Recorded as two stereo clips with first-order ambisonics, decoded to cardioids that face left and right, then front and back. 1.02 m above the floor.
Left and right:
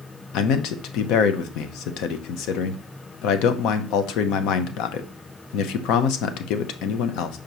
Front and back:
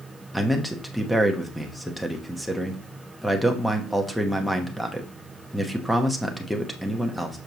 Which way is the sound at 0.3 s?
90° left.